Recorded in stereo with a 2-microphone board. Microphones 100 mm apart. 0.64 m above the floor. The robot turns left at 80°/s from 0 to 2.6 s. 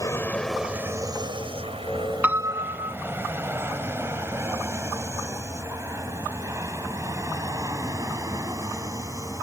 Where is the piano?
15° right (ahead or behind); by 3.0 s 45° right (ahead or behind).